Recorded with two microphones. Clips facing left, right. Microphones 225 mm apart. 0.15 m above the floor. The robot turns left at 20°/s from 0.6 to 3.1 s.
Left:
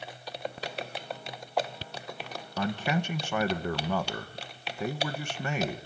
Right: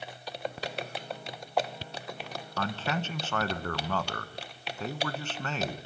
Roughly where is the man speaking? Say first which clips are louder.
Left 3 dB; centre.